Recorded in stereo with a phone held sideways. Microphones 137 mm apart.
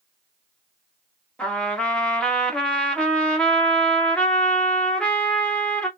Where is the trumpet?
5° left (ahead or behind), 1.1 m.